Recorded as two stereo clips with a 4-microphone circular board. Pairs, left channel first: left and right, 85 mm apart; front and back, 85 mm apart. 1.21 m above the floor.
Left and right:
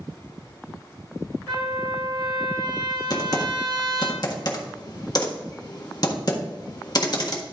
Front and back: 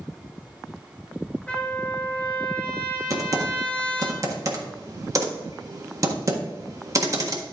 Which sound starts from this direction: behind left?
Typing on a keyboard, at 3.1 s.